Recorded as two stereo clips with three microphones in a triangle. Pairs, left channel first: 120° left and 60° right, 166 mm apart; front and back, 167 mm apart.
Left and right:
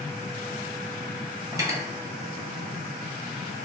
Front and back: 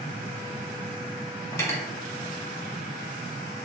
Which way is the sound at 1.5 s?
35° right.